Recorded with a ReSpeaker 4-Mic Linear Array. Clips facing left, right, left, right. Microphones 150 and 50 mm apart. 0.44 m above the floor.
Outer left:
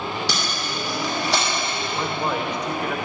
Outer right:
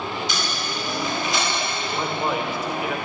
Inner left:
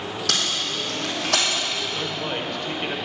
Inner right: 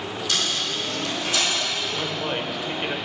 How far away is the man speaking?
About 1.3 m.